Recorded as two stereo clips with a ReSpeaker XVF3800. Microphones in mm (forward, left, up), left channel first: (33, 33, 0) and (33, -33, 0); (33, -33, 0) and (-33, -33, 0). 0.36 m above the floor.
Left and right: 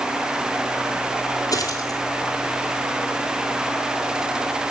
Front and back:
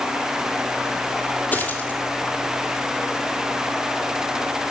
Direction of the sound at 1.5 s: 65° left.